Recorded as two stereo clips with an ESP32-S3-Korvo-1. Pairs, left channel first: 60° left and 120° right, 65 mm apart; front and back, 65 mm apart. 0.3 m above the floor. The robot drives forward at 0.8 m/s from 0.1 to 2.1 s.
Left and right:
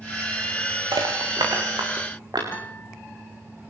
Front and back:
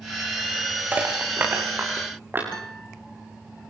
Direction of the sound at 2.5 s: 75° left.